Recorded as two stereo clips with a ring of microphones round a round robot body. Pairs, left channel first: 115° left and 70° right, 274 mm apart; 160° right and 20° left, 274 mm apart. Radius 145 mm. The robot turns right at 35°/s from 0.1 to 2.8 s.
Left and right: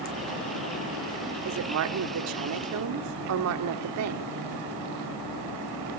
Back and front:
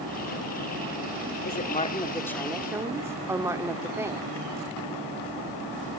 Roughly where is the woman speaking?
Right.